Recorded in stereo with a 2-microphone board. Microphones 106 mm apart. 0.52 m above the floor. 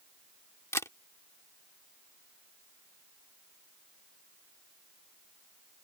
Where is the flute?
I don't hear a flute.